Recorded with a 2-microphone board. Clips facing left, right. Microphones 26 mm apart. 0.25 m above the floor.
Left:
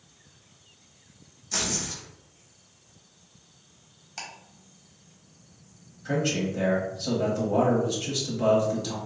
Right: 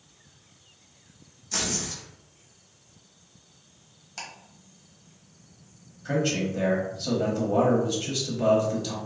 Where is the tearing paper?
5° left (ahead or behind), 0.8 m.